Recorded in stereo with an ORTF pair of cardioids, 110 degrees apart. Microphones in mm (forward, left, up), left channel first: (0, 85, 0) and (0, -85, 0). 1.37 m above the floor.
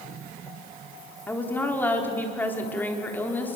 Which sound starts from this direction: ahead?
A woman speaking, at 1.3 s.